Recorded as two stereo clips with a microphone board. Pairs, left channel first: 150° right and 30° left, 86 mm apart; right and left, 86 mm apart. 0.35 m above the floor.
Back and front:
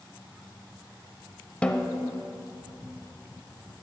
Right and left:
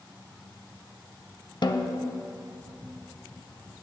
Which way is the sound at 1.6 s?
75° right.